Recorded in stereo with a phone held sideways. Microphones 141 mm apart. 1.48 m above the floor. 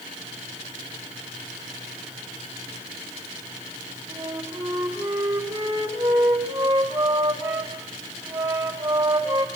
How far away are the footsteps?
I don't hear footsteps.